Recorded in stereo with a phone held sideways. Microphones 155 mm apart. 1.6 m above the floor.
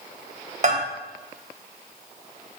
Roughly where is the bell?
Right.